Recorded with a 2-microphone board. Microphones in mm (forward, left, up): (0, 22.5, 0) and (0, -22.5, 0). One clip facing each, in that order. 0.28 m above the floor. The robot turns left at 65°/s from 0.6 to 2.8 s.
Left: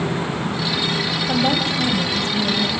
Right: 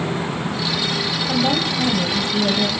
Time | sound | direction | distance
1.3 | a woman speaking | 25° left | 1.5 m